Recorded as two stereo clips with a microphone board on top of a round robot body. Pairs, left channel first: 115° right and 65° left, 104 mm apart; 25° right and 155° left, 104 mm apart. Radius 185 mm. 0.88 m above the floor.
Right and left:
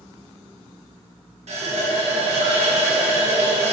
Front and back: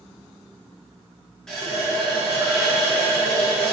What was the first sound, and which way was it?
A running tap, 65° left.